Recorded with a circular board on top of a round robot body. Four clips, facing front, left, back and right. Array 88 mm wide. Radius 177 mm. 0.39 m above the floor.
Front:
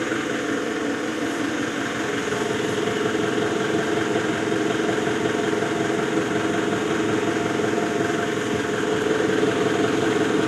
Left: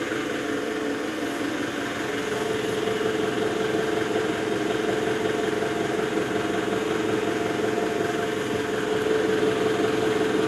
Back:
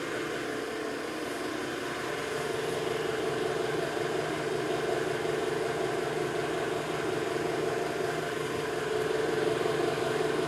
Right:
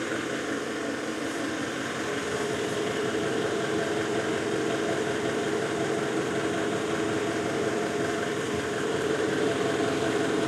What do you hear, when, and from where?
0.0 s an engine running: 10° left, 3 m